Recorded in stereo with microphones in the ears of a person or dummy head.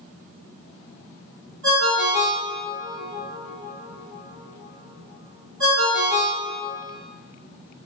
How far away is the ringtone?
About 2.0 m.